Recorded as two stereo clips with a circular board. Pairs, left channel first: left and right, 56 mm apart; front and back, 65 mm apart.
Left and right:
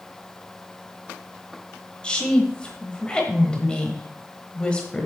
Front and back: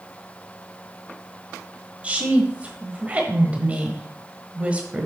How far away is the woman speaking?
About 1.1 m.